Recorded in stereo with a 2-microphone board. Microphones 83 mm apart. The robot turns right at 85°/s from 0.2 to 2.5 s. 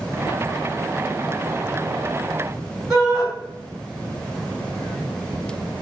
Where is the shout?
5° right (ahead or behind), 1.3 m.